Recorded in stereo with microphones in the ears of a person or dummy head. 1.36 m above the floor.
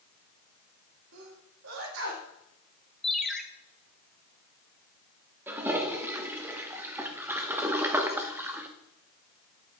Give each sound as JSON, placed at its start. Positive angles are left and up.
{"t": 1.1, "sound": "a sneeze", "side_deg": -80, "distance_m": 2.0}
{"t": 3.0, "sound": "a ringtone", "side_deg": 10, "distance_m": 0.6}
{"t": 5.5, "sound": "a toilet flushing", "side_deg": -20, "distance_m": 0.8}